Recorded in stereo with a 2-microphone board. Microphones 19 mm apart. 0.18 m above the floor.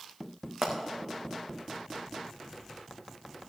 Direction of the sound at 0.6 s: 25° right (ahead or behind).